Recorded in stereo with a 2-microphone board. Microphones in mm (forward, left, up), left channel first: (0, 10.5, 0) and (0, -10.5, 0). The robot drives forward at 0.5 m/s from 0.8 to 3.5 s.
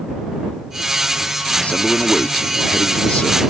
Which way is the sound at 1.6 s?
70° left (ahead or behind).